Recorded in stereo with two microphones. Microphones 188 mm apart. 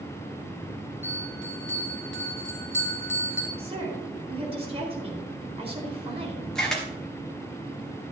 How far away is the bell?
About 2.5 m.